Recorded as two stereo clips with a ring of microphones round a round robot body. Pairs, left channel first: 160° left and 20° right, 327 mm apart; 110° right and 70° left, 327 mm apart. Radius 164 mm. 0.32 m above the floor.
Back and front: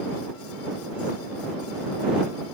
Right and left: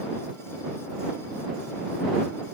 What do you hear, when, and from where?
Only background noise.